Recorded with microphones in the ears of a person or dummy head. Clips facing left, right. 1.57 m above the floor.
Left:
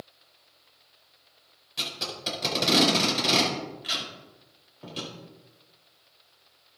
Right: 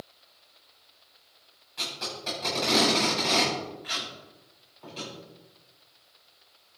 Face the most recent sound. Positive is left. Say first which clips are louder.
# left 1 dB
turn(degrees=45)  # may be behind; listen again after turning